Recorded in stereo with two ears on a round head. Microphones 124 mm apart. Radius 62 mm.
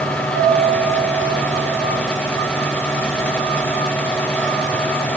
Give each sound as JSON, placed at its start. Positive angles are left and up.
{"t": 0.3, "sound": "a piano", "side_deg": -45, "distance_m": 5.5}